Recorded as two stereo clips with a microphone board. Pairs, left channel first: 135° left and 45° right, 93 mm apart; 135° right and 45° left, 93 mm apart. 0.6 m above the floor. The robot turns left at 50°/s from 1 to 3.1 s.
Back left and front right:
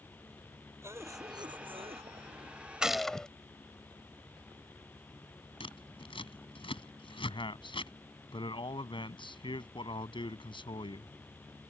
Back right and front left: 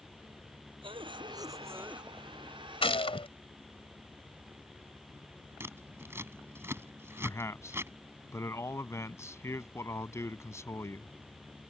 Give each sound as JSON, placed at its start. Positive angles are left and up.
{"t": 0.8, "sound": "a cough", "azimuth_deg": 15}
{"t": 2.8, "sound": "a gunshot", "azimuth_deg": -125}
{"t": 5.6, "sound": "scissors", "azimuth_deg": 110}
{"t": 7.2, "sound": "a man speaking", "azimuth_deg": 165}